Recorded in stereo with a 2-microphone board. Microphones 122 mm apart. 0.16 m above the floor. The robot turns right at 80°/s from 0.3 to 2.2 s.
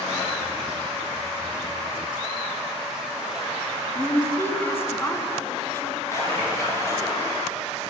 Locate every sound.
4.0 s a woman speaking: 20° left (ahead or behind), 1.0 m
6.1 s a splash: 25° left (ahead or behind), 3 m